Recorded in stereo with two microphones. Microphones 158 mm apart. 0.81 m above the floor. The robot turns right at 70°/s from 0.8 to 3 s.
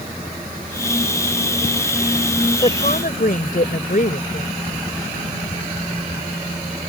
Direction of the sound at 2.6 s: 35° left (ahead or behind).